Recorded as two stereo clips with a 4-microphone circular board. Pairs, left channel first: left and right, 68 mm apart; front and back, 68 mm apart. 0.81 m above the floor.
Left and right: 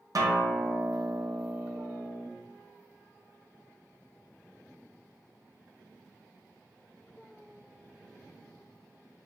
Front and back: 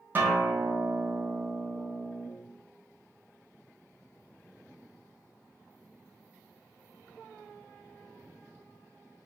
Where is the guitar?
120° right, 0.7 m.